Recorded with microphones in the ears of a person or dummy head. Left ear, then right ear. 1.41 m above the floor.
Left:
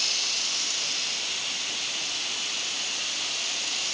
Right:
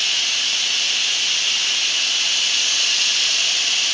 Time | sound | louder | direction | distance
0.0 | running water | right 7 dB | 50° right (ahead or behind) | ?